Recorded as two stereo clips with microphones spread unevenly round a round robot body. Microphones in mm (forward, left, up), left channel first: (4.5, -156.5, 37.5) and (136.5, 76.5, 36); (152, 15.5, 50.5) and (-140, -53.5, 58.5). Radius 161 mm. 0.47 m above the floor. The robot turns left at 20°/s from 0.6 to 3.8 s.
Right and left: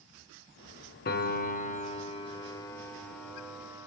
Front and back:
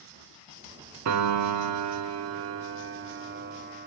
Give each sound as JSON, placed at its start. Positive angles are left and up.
{"t": 1.1, "sound": "a piano", "azimuth_deg": -165, "distance_m": 0.7}